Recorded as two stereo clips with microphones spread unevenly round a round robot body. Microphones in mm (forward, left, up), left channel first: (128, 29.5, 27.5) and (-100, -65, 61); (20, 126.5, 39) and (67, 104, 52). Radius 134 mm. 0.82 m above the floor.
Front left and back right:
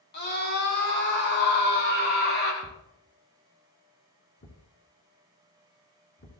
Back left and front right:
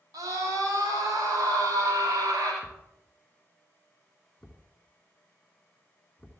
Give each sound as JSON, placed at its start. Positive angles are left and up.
{"t": 0.1, "sound": "a scream", "azimuth_deg": -25, "distance_m": 8.5}
{"t": 2.6, "sound": "a thud", "azimuth_deg": 75, "distance_m": 3.5}